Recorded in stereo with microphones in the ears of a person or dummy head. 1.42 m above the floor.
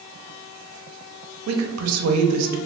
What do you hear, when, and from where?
1.5 s a woman speaking: 80° right, 0.6 m